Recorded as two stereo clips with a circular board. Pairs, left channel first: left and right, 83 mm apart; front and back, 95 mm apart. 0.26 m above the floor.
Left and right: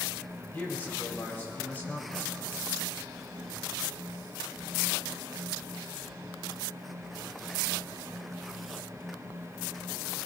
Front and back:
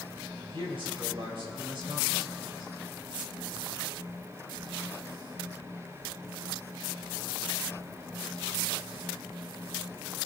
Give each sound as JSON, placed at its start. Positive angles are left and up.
{"t": 0.5, "sound": "a man speaking", "azimuth_deg": 160, "distance_m": 5.5}